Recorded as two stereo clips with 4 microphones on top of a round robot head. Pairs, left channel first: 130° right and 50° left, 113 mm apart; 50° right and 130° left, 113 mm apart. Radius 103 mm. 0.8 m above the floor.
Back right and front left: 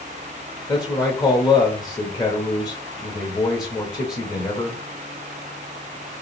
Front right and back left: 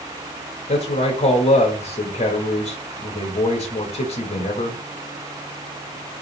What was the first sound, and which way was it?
A man speaking, 75° right.